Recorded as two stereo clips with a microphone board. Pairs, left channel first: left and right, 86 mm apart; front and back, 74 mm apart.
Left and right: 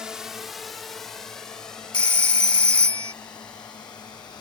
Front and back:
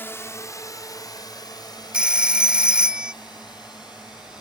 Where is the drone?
15° right; by 4.4 s 15° left.